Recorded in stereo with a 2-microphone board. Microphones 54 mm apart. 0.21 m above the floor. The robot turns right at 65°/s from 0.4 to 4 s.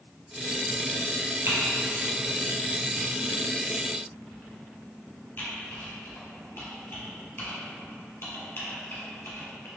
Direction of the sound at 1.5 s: 55° right (ahead or behind).